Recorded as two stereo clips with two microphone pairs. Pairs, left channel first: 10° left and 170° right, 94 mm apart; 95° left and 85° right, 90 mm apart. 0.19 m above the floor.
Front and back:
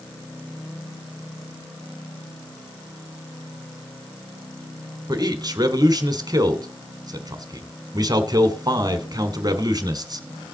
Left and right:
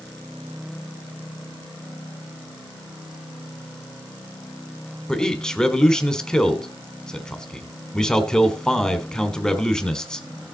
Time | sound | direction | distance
5.1 | a man speaking | 175° left | 1.4 m